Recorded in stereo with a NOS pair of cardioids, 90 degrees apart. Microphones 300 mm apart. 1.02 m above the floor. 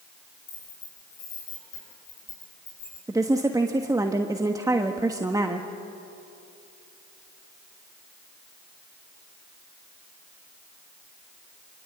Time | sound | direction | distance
0.5 | keys jangling | 65° left | 10 m
3.1 | a woman speaking | 10° right | 1.3 m